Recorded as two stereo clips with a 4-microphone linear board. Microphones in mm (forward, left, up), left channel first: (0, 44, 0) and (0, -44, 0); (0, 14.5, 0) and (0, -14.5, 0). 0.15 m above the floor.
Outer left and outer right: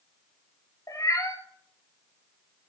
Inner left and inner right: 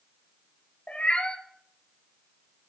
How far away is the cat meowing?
About 1.2 m.